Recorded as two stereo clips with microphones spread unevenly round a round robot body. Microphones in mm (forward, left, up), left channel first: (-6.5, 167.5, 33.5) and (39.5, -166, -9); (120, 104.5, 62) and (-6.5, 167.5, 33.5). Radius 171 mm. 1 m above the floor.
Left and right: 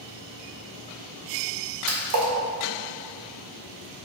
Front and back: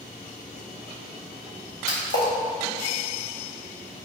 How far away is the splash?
About 1.6 m.